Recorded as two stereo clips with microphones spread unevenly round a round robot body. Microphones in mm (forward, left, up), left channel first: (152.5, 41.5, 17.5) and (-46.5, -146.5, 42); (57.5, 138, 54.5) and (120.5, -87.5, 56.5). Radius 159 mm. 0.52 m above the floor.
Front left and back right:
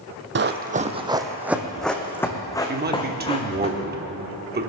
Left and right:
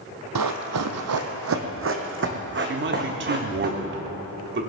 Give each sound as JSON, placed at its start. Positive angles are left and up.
{"t": 0.3, "sound": "running footsteps", "azimuth_deg": -95, "distance_m": 1.3}
{"t": 2.7, "sound": "a man speaking", "azimuth_deg": -85, "distance_m": 1.5}